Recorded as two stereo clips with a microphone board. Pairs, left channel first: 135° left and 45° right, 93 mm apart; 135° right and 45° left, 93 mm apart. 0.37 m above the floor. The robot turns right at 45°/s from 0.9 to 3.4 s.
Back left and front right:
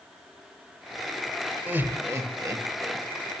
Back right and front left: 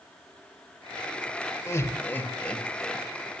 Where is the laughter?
105° right, 1.1 m; by 3.0 s 40° right, 1.1 m.